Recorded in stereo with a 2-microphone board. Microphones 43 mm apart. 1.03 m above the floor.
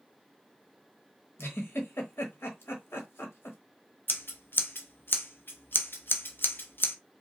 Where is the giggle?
70° left (ahead or behind), 1.2 m.